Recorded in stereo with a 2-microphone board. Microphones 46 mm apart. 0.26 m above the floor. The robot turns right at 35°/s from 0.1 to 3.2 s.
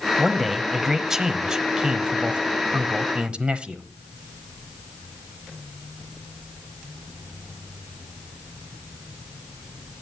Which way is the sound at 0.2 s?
Centre (ahead or behind).